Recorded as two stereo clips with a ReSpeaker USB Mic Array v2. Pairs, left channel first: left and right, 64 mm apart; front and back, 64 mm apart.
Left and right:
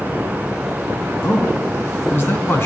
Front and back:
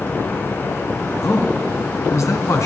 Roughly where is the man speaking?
Ahead left.